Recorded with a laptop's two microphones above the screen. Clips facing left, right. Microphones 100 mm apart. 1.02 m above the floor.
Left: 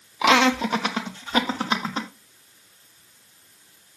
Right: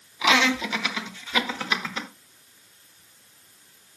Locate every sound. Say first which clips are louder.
0.2 s laughter: left 4 dB; 55° left (ahead or behind), 1.1 m; by 2.1 s 35° left (ahead or behind), 3 m